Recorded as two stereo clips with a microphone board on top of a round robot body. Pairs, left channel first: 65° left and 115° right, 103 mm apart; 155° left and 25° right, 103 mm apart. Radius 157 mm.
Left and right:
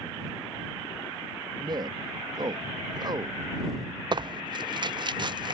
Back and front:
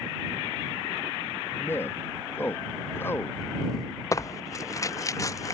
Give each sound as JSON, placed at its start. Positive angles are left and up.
{"t": 1.6, "sound": "a man speaking", "azimuth_deg": -140}
{"t": 4.1, "sound": "tearing paper", "azimuth_deg": -150}